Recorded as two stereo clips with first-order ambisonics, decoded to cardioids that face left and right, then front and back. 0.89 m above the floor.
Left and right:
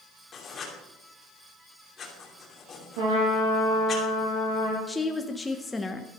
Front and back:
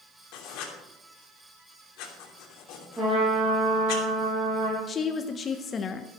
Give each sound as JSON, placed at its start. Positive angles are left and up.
{"t": 0.3, "sound": "writing", "azimuth_deg": 20, "distance_m": 2.5}
{"t": 3.0, "sound": "a trumpet", "azimuth_deg": -100, "distance_m": 6.5}
{"t": 4.9, "sound": "a woman speaking", "azimuth_deg": 15, "distance_m": 0.8}